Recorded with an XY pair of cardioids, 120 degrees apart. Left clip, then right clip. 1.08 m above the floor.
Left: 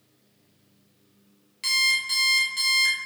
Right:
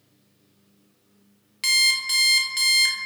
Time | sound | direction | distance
1.6 | an alarm clock | 35° right | 0.6 m